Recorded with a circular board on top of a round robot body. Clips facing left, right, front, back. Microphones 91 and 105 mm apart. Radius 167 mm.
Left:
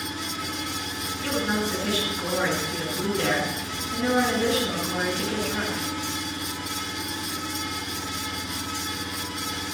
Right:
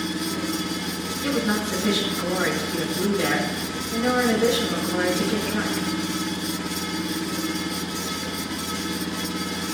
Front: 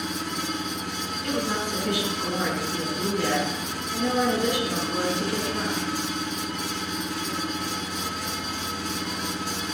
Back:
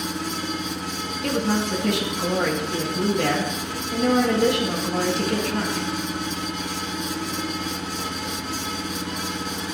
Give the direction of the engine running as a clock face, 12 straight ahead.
3 o'clock.